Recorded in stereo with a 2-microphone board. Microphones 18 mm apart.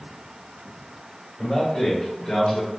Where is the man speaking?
65° left (ahead or behind), 1.9 m; by 2.7 s 40° left (ahead or behind), 1.1 m.